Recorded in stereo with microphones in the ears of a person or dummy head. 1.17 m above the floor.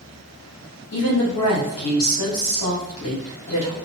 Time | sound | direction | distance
0.9 | a woman speaking | 80° left | 1.5 m